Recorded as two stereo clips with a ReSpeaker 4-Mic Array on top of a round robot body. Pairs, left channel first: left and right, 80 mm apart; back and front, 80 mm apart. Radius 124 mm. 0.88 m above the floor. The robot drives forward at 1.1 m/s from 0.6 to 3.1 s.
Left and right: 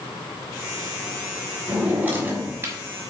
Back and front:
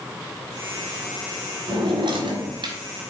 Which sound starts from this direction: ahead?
A drawer, at 1.7 s.